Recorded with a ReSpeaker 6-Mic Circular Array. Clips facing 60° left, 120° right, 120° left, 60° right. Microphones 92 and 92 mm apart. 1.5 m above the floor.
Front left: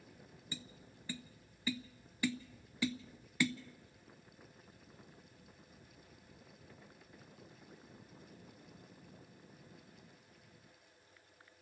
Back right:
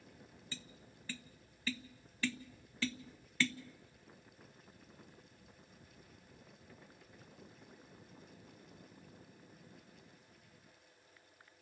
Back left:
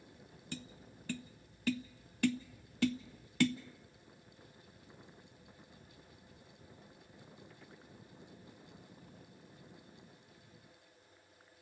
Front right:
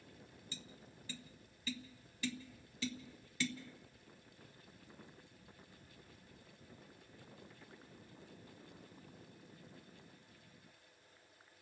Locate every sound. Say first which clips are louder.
0.5 s tapping: front left 3 dB, back left 10 dB; 135° left, 0.5 m